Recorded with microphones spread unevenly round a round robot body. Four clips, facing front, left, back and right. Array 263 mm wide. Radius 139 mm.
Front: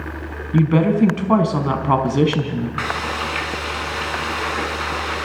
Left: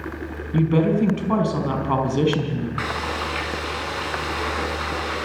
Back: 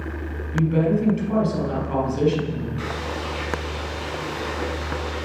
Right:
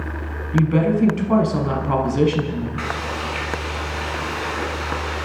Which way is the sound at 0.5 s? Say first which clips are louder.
Right 1 dB, front 4 dB; 5° right.